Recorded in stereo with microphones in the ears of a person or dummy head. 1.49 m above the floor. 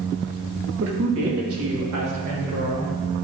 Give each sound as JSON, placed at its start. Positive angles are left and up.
{"t": 0.8, "sound": "a woman speaking", "side_deg": -65, "distance_m": 1.8}